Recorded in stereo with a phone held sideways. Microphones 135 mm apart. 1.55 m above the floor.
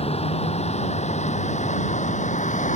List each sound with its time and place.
0.0 s a vehicle: 55° left (ahead or behind); by 2.8 s 75° left (ahead or behind)